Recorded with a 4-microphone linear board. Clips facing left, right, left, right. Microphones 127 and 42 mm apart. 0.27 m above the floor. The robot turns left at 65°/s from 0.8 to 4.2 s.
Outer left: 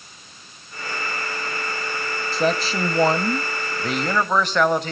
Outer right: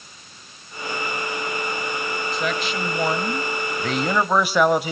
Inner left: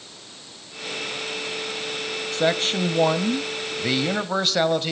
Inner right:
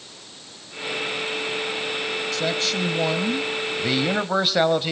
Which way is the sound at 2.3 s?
105° left.